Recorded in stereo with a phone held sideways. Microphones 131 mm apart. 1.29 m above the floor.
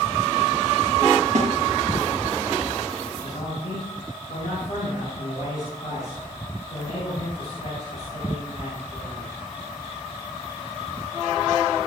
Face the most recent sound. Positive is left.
turn(degrees=55)  # may be behind; listen again after turning